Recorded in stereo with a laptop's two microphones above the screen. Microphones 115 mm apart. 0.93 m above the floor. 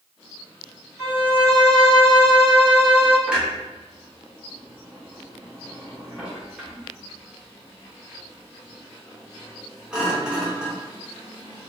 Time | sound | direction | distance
1.0 | a violin | 70° right (ahead or behind) | 1.5 m
3.3 | a clunk | 10° right (ahead or behind) | 0.6 m